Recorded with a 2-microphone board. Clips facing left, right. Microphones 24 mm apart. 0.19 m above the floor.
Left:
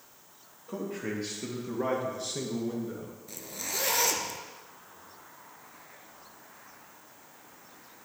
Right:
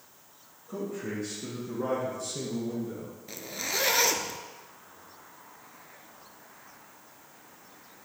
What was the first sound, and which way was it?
A man speaking, 60° left (ahead or behind).